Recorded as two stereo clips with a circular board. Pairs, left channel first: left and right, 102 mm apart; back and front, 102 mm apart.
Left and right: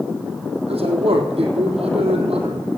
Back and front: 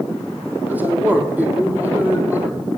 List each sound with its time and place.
0.7 s a man speaking: 75° right, 3.5 m